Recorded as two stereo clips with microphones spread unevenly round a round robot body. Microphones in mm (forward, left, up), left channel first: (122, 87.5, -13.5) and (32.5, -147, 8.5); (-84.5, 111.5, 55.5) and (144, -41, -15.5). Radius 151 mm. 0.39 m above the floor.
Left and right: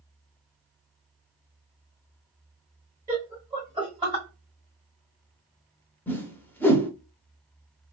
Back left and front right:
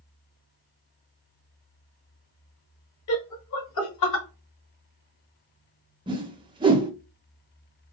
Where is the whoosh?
Straight ahead, 0.7 m.